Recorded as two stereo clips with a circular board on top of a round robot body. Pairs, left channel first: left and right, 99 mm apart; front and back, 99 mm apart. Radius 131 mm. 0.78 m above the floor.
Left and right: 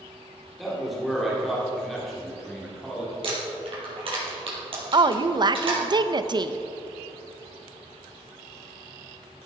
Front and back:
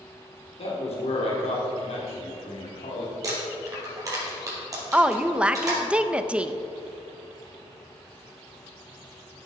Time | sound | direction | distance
0.6 | a man speaking | straight ahead | 2.5 m
3.2 | crumpling | 125° right | 4 m
4.9 | a woman speaking | 105° right | 0.7 m